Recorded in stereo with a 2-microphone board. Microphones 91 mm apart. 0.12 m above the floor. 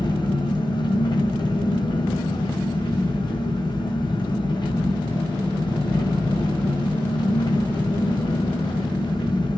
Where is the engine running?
55° left (ahead or behind), 1.6 m.